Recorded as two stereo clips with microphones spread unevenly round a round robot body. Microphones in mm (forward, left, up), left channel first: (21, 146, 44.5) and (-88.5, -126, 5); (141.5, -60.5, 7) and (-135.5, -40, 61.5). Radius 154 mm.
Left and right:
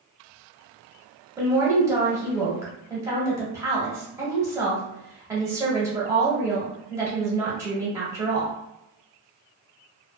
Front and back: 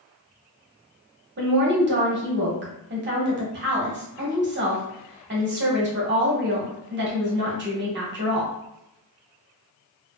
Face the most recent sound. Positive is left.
turn(degrees=-165)